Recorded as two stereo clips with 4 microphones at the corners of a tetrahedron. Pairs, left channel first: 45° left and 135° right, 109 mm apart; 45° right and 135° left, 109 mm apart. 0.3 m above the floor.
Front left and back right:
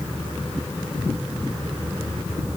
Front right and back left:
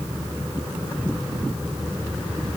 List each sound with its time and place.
Only background noise.